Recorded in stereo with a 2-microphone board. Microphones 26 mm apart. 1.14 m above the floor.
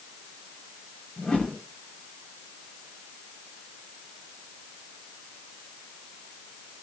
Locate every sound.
1.2 s a whoosh: 40° left (ahead or behind), 8 m